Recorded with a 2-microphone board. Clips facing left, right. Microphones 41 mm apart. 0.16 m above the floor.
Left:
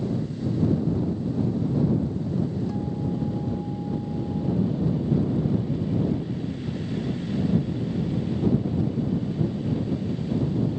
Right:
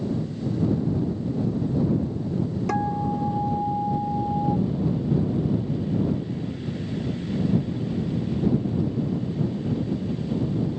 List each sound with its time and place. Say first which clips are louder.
2.7 s a guitar: right 4 dB; 70° right (ahead or behind)